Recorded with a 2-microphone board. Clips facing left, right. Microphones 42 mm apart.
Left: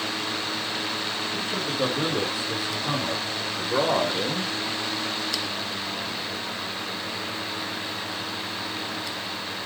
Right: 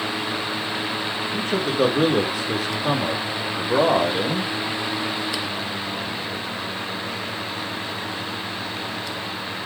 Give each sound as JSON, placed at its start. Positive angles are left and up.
{"t": 1.3, "sound": "a man speaking", "side_deg": -70, "distance_m": 5.0}